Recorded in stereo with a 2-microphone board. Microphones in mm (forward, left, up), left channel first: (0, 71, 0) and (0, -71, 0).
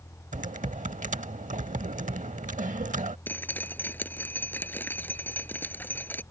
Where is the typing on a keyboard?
65° right (ahead or behind).